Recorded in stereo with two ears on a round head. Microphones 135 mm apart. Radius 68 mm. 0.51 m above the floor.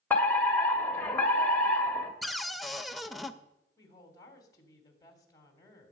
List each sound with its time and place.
0.1 s a fire alarm: 10° left (ahead or behind), 1.6 m
2.2 s a cupboard door: centre (ahead or behind), 0.7 m
3.8 s a woman speaking: 25° left (ahead or behind), 3 m